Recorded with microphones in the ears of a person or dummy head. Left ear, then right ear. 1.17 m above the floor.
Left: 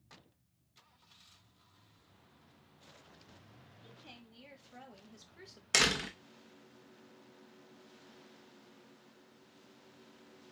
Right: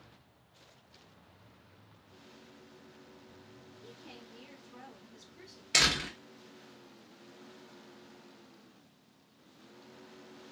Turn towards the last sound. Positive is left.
turn(degrees=45)  # may be behind; listen again after turning